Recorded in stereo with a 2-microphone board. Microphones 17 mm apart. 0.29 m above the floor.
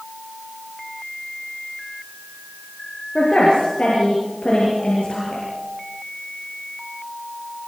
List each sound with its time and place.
3.1 s a woman speaking: 80° left, 7 m